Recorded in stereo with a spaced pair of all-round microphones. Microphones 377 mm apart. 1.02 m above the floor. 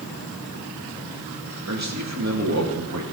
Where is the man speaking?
45° right (ahead or behind), 2.5 m.